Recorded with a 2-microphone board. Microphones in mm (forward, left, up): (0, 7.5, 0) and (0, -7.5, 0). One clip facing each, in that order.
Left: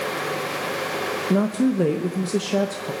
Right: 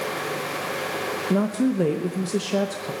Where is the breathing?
I don't hear breathing.